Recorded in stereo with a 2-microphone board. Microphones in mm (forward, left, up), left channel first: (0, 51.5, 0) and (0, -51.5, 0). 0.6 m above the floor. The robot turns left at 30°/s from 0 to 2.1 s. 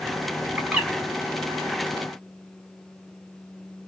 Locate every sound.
0.6 s a bird: 10° right (ahead or behind), 1.4 m; by 0.9 s 20° right (ahead or behind), 1.4 m